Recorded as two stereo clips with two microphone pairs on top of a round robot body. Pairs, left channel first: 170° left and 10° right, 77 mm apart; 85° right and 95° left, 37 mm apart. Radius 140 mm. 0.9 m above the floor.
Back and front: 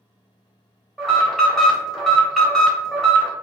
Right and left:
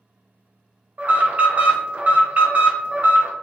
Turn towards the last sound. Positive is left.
turn(degrees=95)